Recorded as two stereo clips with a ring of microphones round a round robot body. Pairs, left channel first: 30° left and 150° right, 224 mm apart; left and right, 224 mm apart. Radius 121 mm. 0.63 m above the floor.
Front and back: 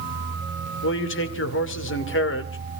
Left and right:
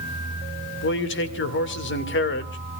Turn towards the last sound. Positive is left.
turn(degrees=55)